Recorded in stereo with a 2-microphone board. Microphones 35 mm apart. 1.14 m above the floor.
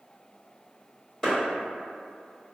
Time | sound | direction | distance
1.2 | a clap | 10° left (ahead or behind) | 1.7 m